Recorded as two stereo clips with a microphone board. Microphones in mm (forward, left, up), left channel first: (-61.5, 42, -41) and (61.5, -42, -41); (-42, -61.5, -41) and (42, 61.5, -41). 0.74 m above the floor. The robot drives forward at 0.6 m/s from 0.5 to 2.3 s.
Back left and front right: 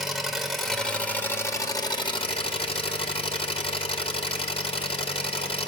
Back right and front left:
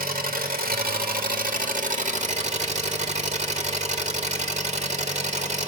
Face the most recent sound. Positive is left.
turn(degrees=95)